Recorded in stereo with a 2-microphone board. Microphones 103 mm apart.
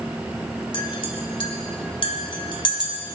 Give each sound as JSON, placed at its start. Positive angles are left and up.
{"t": 0.7, "sound": "a clink", "side_deg": 55, "distance_m": 2.0}